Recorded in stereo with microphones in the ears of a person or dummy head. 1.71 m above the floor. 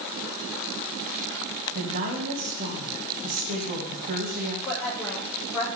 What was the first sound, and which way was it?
A woman speaking, 55° right (ahead or behind).